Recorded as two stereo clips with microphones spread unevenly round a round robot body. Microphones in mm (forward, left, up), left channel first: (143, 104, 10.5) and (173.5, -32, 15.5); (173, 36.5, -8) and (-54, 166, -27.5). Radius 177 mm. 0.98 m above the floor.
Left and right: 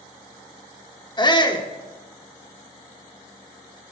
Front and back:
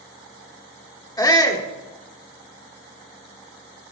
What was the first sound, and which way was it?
A shout, 45° left.